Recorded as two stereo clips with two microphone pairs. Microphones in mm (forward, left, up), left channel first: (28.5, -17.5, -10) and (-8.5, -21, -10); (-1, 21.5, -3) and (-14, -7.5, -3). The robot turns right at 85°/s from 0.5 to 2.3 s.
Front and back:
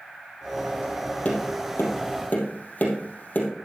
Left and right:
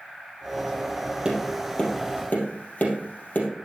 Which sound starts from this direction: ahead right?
Tapping, at 1.2 s.